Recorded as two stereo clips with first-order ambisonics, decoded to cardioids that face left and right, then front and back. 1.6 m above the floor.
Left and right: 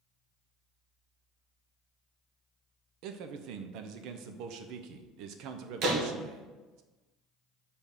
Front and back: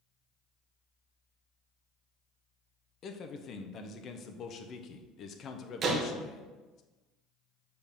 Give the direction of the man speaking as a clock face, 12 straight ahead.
2 o'clock.